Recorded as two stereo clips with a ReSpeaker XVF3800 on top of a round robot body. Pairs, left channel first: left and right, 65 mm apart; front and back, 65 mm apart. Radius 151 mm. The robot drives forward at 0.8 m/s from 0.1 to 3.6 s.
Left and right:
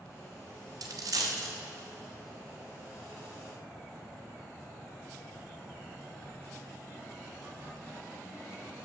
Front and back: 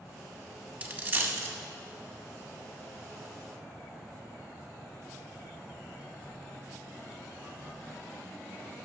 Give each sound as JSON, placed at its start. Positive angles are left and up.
{"t": 0.8, "sound": "a dropped coin", "azimuth_deg": -110, "distance_m": 1.3}